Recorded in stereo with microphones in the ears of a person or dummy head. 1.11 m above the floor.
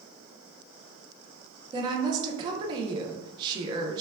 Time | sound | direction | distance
1.7 | a woman speaking | 30° right (ahead or behind) | 0.5 m